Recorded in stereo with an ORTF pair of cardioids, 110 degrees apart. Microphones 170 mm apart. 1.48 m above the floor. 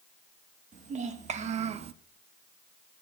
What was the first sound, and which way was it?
A child speaking, 45° right.